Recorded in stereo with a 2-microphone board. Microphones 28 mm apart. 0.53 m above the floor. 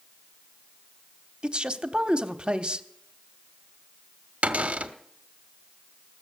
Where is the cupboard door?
60° right (ahead or behind), 1.0 m.